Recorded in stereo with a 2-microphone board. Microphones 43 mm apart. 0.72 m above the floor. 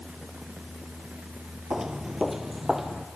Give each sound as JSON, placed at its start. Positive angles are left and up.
{"t": 1.7, "sound": "footsteps", "side_deg": -20, "distance_m": 0.8}